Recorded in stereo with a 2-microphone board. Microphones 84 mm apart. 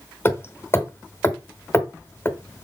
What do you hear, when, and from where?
0.2 s hammering: 30° left (ahead or behind), 1.2 m